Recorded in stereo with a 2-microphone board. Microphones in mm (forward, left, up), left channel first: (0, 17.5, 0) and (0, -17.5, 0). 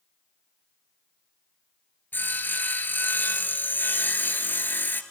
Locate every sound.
2.1 s sawing: 65° left (ahead or behind), 1.0 m